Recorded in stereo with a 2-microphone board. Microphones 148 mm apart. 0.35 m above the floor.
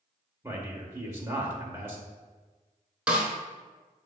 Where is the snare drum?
10° right (ahead or behind), 0.9 m.